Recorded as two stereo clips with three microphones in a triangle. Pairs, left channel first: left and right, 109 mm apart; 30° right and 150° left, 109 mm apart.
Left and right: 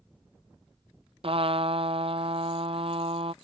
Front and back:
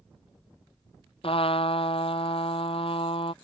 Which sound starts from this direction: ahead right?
A trumpet, at 1.2 s.